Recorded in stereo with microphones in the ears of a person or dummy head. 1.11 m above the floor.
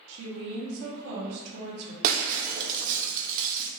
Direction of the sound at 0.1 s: 70° right (ahead or behind).